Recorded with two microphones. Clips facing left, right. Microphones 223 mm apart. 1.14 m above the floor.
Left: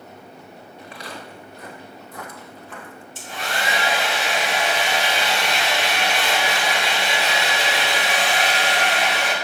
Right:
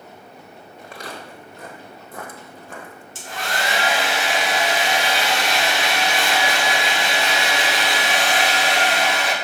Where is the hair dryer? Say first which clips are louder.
Right 1 dB; 85° right, 2.5 m.